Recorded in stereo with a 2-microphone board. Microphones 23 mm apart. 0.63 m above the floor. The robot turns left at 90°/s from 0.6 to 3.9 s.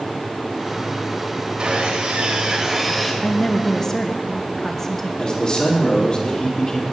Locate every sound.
1.6 s sawing: 55° right, 1.5 m; by 3.1 s 170° left, 1.5 m
3.2 s a woman speaking: 90° left, 0.6 m; by 5.1 s 30° left, 0.6 m
5.2 s a man speaking: 40° left (ahead or behind), 1.4 m